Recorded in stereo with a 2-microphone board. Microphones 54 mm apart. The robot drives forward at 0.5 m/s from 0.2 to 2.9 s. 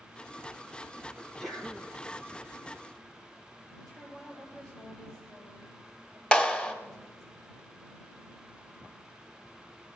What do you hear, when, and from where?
1.2 s a sneeze: centre (ahead or behind), 3 m
3.8 s a woman speaking: 15° left (ahead or behind), 8 m
6.3 s a clap: 20° left (ahead or behind), 1.1 m